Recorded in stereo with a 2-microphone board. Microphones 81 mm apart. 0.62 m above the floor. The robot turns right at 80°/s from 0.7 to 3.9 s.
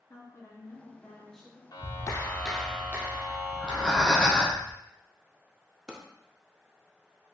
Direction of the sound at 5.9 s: 10° right (ahead or behind).